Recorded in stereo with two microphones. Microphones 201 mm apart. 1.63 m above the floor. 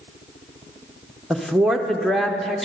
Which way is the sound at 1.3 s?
Centre (ahead or behind).